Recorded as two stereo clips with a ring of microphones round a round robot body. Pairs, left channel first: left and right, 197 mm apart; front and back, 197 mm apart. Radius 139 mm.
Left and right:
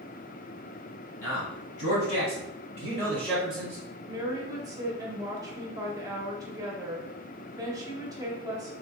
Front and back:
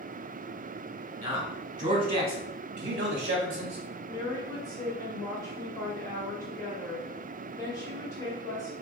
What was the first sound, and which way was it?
A man speaking, 110° left.